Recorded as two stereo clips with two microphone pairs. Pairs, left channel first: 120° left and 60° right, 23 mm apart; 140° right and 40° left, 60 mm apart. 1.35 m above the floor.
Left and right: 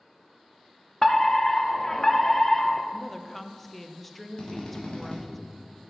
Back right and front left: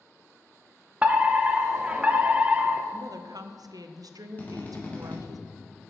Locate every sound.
1.0 s a fire alarm: 75° left, 0.7 m
2.9 s a woman speaking: 35° left, 0.6 m
4.4 s a drill: 160° left, 1.6 m